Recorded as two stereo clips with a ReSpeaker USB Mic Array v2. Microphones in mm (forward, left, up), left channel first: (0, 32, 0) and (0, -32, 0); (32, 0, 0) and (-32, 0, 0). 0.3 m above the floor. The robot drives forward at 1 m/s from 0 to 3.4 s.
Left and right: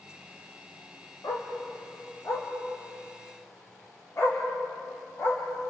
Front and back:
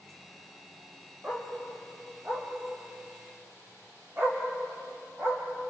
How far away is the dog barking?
About 5.5 m.